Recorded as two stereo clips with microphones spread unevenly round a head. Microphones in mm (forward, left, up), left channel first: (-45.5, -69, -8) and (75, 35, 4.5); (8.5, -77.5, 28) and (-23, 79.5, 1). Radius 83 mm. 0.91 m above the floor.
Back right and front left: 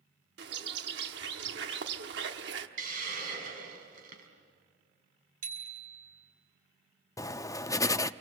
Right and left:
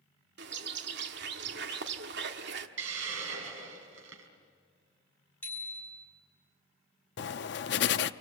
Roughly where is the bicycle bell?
Ahead.